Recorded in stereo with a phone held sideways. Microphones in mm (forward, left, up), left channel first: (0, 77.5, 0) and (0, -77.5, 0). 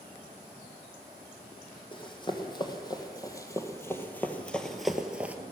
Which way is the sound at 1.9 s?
30° left (ahead or behind).